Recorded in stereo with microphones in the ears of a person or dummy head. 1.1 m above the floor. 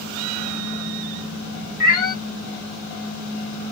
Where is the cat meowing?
45° left (ahead or behind), 1.9 m.